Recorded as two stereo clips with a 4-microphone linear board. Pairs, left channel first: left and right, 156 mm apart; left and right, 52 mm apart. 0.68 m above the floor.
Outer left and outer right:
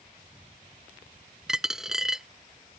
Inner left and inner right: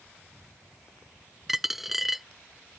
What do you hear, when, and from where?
1.5 s a dropped coin: 5° right (ahead or behind)